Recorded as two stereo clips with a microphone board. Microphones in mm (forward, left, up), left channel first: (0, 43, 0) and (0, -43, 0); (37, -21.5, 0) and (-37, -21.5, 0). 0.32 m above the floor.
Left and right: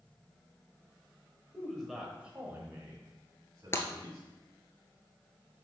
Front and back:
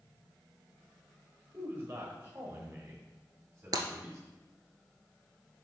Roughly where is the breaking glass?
Behind left.